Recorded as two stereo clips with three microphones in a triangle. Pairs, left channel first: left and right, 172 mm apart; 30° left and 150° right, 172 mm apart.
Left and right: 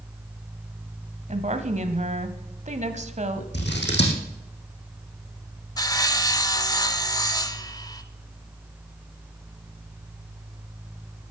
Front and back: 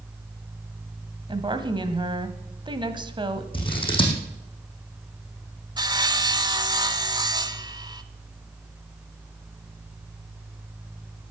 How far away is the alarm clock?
No alarm clock in this recording.